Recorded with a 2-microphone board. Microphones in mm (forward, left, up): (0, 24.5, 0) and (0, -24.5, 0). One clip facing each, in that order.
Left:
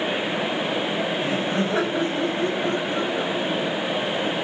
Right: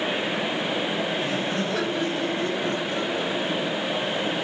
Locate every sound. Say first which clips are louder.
1.2 s laughter: left 3 dB; 25° left (ahead or behind), 5.5 m